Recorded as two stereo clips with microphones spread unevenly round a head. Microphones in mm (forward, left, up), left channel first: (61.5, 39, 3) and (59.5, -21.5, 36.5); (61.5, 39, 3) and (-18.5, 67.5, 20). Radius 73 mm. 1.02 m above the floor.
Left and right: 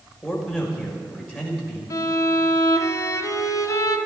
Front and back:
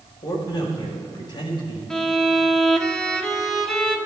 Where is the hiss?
No hiss in this recording.